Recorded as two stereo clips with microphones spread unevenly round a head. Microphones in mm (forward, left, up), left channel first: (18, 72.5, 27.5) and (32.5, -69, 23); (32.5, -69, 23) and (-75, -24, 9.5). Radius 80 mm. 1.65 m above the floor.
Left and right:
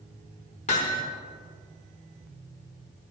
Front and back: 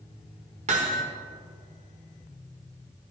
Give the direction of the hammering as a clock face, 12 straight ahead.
8 o'clock.